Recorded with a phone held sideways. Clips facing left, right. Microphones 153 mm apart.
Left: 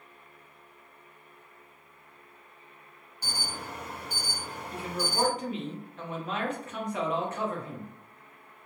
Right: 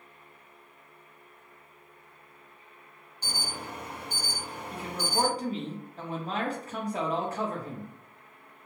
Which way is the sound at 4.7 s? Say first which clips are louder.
Right 1 dB; 35° right (ahead or behind).